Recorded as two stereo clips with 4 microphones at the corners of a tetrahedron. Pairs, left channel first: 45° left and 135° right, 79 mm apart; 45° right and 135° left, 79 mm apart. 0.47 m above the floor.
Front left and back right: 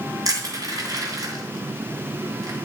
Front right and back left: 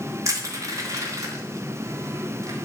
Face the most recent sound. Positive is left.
turn(degrees=-175)